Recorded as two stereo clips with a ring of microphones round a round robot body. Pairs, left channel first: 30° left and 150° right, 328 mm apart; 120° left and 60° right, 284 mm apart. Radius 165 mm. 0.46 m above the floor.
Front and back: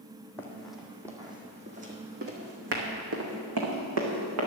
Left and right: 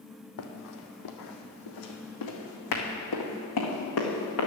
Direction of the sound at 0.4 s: 110° left.